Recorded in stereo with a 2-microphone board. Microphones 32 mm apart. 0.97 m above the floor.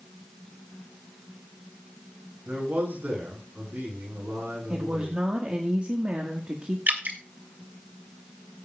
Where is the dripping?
55° right (ahead or behind), 1.8 m.